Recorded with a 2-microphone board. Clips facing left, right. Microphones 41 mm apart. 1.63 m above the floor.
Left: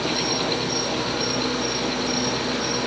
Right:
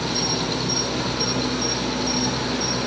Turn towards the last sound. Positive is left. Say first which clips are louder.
# left 1 dB
turn(degrees=10)  # may be behind; listen again after turning